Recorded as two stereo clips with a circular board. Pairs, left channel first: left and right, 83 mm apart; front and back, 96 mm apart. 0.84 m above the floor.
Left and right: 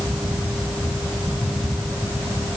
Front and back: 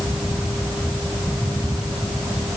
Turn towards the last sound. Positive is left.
No sound to turn to.